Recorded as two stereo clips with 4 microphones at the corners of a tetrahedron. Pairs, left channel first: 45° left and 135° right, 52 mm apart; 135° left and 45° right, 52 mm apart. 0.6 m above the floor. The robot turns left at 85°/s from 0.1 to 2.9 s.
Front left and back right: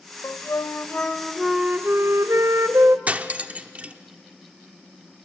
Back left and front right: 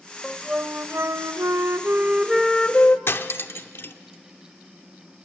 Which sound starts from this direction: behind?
Cutlery clinking, at 3.1 s.